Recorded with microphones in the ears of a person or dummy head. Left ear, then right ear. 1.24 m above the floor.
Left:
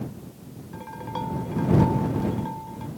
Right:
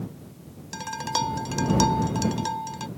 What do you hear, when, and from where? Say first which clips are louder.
0.7 s dishes clattering: right 6 dB; 75° right (ahead or behind)